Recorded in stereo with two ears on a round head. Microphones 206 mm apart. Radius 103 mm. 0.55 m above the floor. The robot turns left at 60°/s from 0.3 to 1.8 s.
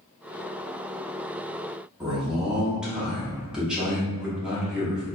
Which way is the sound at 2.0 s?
5° right (ahead or behind).